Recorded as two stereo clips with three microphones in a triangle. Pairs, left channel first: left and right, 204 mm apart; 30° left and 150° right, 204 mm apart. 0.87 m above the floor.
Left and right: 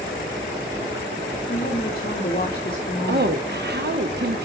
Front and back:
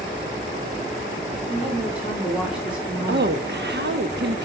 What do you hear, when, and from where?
1.5 s a woman speaking: 125° left, 1.8 m
3.1 s a woman speaking: 120° right, 0.9 m